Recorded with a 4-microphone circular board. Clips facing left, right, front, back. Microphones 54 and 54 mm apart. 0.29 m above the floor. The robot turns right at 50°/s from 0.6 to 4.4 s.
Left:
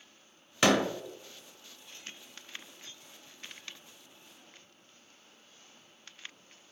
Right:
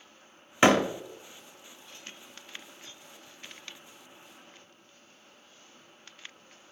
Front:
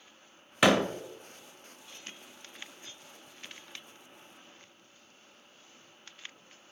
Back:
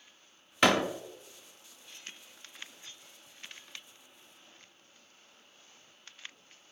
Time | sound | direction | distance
0.6 | a door slam | 75° right | 0.8 m